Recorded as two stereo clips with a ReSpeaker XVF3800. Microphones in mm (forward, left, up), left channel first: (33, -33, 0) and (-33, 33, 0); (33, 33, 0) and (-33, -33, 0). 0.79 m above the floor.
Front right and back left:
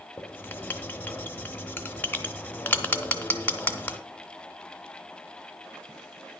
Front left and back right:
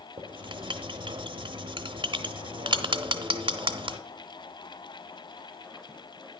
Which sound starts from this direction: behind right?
Writing, at 0.2 s.